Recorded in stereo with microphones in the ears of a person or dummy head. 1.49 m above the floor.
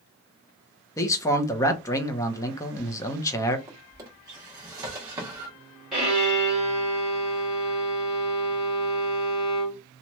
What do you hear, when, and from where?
1.0 s a man speaking: 20° left (ahead or behind), 0.7 m
3.7 s a drawer: 20° right (ahead or behind), 1.3 m
5.9 s a violin: 5° right (ahead or behind), 1.8 m